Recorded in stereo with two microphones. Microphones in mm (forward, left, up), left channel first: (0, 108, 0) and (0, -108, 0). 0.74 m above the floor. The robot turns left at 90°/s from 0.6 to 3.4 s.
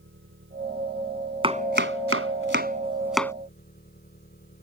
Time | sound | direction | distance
0.0 | an engine running | 65° right | ?
1.4 | chopping | 25° right (ahead or behind) | ?